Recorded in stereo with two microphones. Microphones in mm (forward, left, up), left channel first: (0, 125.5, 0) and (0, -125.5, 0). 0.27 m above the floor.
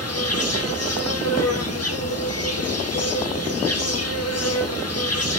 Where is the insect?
75° left (ahead or behind), 2 m.